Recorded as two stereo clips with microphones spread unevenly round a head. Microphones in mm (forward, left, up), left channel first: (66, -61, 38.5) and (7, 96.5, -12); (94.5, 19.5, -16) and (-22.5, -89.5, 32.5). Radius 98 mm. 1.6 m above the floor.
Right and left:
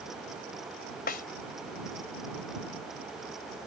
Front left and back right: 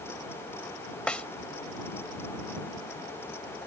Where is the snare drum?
45° right.